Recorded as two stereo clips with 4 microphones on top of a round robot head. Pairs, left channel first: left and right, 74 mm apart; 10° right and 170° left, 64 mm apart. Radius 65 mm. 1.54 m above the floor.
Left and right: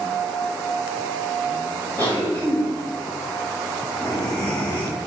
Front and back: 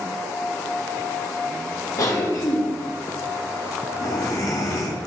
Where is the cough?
20° left, 3 m.